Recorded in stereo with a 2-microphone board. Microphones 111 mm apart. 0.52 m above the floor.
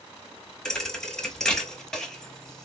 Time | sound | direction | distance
0.7 | a thud | 5° left (ahead or behind) | 0.8 m